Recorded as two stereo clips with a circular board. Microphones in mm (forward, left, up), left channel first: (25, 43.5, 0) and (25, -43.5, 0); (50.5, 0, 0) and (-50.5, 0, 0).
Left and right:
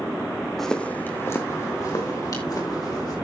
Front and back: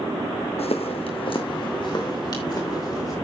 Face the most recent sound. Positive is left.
turn(degrees=50)